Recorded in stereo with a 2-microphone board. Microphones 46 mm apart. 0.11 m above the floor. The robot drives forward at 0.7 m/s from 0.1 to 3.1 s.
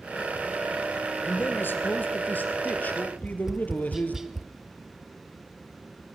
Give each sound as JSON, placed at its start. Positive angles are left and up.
{"t": 1.2, "sound": "a man speaking", "side_deg": 50, "distance_m": 2.0}
{"t": 3.2, "sound": "tapping", "side_deg": -10, "distance_m": 0.6}